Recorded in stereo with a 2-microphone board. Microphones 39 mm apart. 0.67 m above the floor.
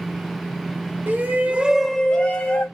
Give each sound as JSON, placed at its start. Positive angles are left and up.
{"t": 1.1, "sound": "a shout", "side_deg": -60, "distance_m": 1.0}